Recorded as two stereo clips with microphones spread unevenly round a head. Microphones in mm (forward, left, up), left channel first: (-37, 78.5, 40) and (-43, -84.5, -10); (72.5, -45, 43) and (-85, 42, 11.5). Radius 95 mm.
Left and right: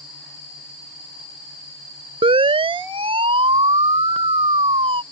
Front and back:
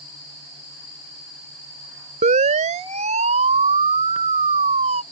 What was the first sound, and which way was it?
A siren, 155° right.